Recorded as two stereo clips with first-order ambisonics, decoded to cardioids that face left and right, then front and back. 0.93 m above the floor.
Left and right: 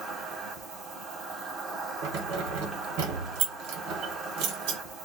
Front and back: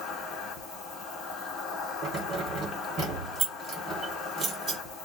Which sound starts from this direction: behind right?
Keys jangling, at 2.0 s.